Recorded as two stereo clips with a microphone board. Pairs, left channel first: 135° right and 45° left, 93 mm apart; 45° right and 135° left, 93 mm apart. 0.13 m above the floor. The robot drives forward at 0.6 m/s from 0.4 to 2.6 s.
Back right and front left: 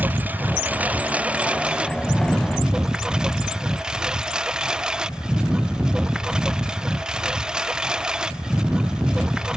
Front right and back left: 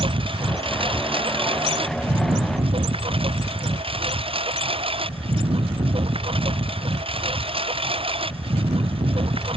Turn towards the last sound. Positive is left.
turn(degrees=125)